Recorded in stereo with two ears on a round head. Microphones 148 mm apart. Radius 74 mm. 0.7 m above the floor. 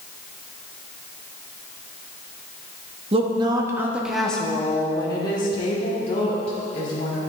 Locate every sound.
3.1 s a woman speaking: 35° right (ahead or behind), 1.1 m; by 7.2 s 40° left (ahead or behind), 2.5 m